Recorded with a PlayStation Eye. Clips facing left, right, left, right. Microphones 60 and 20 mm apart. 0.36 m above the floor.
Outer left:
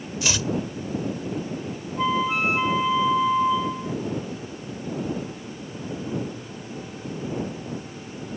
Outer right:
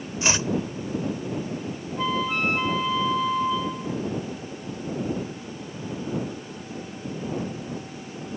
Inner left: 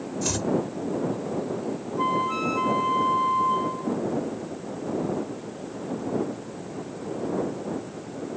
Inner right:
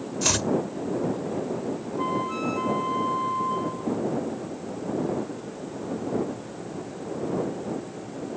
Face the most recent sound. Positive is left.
turn(degrees=15)  # may be behind; listen again after turning